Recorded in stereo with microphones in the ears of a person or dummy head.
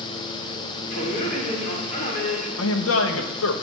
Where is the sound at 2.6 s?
75° left (ahead or behind), 0.8 m.